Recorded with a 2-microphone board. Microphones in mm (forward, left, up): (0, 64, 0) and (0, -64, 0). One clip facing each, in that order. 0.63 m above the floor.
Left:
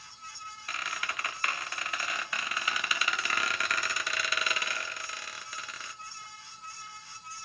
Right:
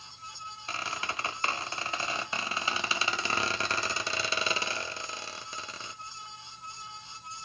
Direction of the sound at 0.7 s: 30° right (ahead or behind).